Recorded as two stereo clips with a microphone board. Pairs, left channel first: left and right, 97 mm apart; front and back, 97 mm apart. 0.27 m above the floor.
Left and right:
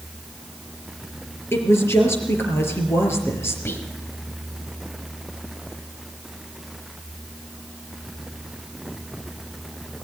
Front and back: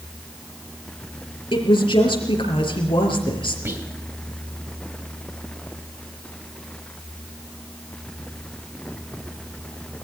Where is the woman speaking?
25° left, 4.5 m.